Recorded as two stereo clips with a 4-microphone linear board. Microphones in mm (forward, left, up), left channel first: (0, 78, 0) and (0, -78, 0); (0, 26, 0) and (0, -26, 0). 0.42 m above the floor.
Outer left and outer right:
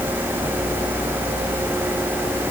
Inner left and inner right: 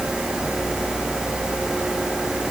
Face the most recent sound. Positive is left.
No sound to turn to.